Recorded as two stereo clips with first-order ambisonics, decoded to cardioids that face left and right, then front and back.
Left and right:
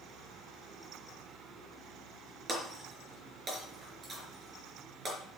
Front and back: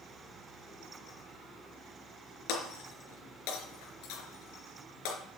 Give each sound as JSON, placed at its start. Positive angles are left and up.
{"t": 2.5, "sound": "breaking glass", "azimuth_deg": -15, "distance_m": 4.0}